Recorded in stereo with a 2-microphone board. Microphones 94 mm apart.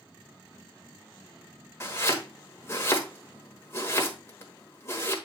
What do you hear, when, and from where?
1.8 s chopping: 30° left (ahead or behind), 1.2 m